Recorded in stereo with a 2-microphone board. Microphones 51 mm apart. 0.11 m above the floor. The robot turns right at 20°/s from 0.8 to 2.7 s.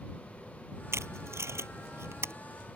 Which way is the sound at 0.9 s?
65° right (ahead or behind).